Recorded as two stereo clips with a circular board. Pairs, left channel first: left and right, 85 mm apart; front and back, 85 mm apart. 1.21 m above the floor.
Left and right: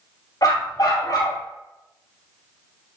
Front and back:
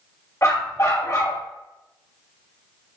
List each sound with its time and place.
0.4 s a dog barking: 55° left, 2.5 m